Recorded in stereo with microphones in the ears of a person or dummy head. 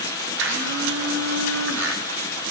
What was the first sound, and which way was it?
A blender, 75° right (ahead or behind).